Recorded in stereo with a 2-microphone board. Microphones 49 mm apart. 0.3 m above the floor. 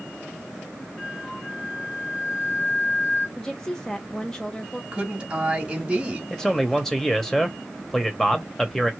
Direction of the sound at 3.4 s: 10° left (ahead or behind).